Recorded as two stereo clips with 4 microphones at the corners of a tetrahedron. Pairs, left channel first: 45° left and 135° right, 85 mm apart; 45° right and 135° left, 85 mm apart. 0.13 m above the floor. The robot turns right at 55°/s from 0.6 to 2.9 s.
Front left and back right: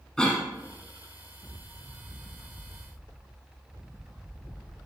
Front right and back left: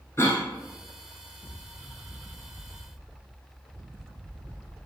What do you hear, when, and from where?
0.2 s a cough: 30° right, 1.2 m